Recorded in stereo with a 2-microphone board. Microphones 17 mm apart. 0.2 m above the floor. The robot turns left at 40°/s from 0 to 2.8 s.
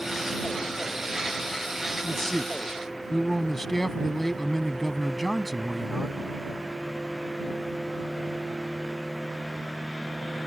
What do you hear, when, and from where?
2.0 s a man speaking: 60° left; by 6.2 s 25° left